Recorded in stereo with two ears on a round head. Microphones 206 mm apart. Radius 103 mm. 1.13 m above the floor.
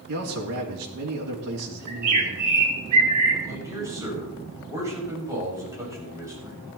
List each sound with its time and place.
0.1 s a man speaking: 80° right, 3 m
1.9 s a bird: 75° right (ahead or behind), 3 m
3.4 s a man speaking: 15° right (ahead or behind), 7 m